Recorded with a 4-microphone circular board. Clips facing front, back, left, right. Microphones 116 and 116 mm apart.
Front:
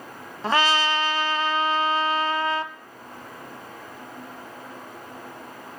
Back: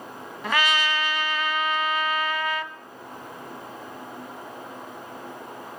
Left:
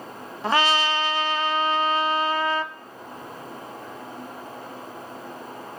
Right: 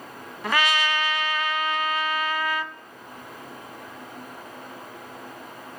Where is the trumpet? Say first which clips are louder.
Front 3 dB, left 3 dB; 45° left, 0.6 m.